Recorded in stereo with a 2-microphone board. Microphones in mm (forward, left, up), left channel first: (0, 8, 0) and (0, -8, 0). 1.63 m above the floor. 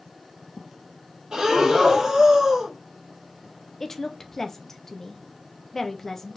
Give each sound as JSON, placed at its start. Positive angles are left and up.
{"t": 1.3, "sound": "breathing", "side_deg": -40, "distance_m": 2.5}
{"t": 3.8, "sound": "a woman speaking", "side_deg": 30, "distance_m": 0.9}